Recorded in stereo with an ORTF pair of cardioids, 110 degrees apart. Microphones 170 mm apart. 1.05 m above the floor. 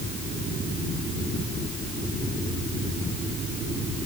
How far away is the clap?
I don't hear a clap.